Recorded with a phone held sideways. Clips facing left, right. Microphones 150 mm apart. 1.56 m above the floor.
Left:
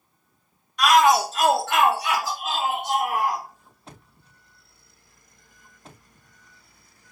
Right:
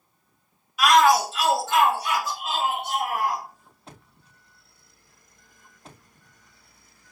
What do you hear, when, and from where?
0.8 s a shout: 5° right (ahead or behind), 0.5 m; by 3.4 s 85° left, 1.8 m